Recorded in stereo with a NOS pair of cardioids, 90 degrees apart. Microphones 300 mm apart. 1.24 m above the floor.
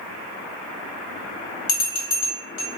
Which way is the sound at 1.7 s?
50° left.